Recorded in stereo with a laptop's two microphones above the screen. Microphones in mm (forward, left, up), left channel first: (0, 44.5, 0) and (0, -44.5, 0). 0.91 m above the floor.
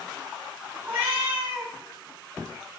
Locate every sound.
0.8 s a cat meowing: 20° right (ahead or behind), 0.8 m